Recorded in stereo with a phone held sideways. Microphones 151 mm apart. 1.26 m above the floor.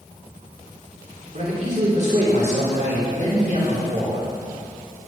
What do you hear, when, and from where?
1.3 s a man speaking: 50° right (ahead or behind), 4 m